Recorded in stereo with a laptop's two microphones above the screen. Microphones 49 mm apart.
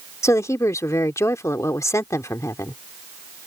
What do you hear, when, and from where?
0.2 s a woman speaking: 80° left